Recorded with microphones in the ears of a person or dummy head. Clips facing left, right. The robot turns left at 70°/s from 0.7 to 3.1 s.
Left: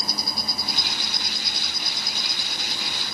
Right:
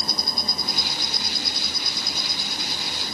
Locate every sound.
0.0 s an insect: 5° left; by 3.1 s 165° right